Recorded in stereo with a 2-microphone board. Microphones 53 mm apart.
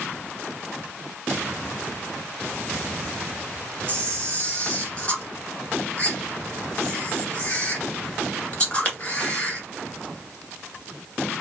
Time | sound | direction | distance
3.9 | a camera shutter | 20° left (ahead or behind) | 1.5 m